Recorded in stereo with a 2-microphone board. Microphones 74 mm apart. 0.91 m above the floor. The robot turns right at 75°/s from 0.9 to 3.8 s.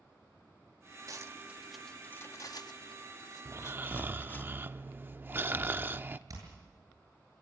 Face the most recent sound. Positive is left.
turn(degrees=-50)  # may be behind; listen again after turning